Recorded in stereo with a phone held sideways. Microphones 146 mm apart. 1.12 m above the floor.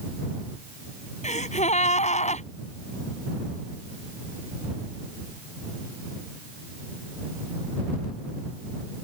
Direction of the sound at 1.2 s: 50° left (ahead or behind).